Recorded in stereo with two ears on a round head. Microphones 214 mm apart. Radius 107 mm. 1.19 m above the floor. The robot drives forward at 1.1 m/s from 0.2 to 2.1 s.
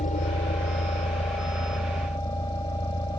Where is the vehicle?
30° left (ahead or behind); by 3.2 s 20° left (ahead or behind).